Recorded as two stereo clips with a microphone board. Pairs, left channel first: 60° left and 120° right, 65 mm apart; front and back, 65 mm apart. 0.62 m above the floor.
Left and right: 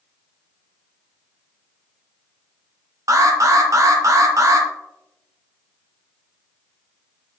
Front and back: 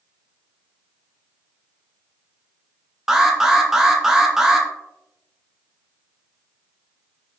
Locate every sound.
3.1 s an alarm: 95° right, 0.6 m